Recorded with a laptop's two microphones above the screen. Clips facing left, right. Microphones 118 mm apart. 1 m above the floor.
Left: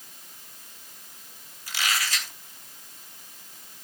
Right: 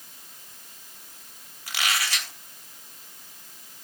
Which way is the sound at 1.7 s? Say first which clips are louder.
Right 1 dB; 65° right (ahead or behind).